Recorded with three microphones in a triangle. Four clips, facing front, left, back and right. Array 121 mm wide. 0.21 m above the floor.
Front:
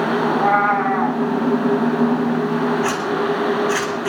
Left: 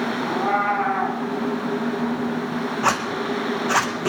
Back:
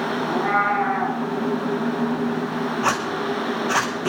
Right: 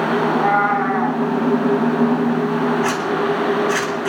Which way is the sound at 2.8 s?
120° left.